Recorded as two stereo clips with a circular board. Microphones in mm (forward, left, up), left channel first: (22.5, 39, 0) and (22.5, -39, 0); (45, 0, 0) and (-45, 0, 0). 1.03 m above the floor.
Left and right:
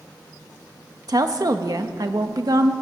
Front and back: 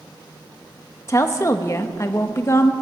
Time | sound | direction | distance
1.1 | a woman speaking | 55° right | 1.0 m